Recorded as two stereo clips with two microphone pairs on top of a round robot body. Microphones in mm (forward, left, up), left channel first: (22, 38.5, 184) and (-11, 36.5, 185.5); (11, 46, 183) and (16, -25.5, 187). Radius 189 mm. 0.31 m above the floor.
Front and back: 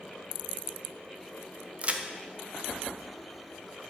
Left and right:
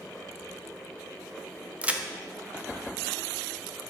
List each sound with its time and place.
1.8 s a crack: 155° right, 0.9 m